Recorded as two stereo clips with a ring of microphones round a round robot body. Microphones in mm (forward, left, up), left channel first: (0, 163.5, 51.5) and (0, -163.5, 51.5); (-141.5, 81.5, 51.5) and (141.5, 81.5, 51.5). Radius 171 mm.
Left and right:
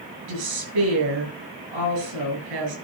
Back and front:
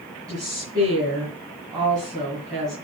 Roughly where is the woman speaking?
Right.